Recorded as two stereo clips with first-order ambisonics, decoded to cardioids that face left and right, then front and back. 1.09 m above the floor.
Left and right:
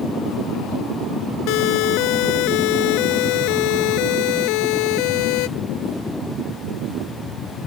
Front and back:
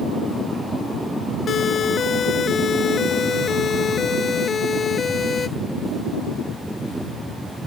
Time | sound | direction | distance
1.5 | a siren | 65° left | ?